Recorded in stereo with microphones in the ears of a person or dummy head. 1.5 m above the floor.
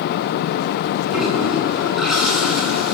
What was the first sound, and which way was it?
A toilet flushing, 5° right (ahead or behind).